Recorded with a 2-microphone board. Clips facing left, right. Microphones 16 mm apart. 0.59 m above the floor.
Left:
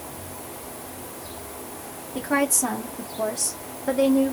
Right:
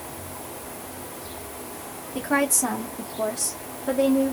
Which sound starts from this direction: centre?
A woman speaking, at 2.1 s.